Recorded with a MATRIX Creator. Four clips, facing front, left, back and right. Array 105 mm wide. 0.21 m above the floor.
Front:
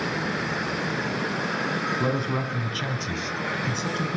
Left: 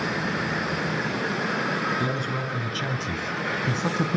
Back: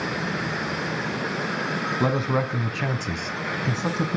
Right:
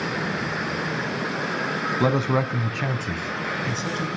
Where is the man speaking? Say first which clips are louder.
Right 6 dB, back 3 dB; 110° right, 1.5 m; by 4.2 s 125° left, 1.4 m.